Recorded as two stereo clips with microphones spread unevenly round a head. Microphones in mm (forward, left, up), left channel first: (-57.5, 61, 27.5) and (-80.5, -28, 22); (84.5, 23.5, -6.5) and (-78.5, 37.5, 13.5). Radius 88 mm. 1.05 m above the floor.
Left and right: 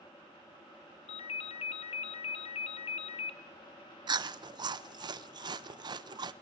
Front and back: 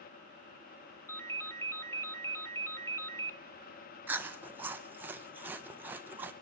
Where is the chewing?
100° right, 0.6 m.